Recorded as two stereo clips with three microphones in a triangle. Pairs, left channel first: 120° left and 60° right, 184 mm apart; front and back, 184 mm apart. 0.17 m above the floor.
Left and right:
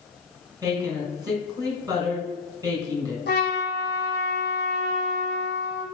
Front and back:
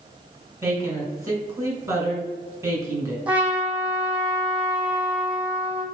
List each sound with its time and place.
0.6 s a woman speaking: 115° right, 2.0 m
3.3 s a trumpet: 95° left, 1.1 m